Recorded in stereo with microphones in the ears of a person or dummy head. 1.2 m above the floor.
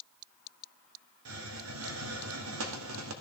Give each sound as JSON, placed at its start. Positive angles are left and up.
{"t": 1.2, "sound": "a hiss", "side_deg": -85, "distance_m": 1.6}